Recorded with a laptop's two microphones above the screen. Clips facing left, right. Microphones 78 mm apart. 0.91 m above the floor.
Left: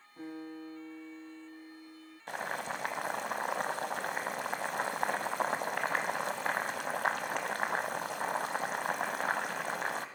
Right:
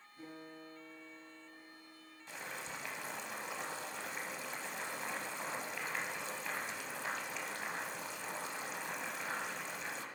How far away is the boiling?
About 1.5 m.